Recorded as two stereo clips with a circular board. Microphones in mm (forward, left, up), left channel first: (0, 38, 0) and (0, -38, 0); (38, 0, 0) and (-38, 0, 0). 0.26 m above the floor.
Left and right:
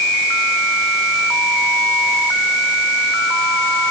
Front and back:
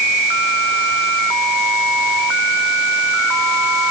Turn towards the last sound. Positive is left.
No sound to turn to.